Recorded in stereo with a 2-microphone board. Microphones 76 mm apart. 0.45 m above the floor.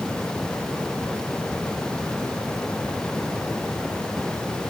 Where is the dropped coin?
No dropped coin in this recording.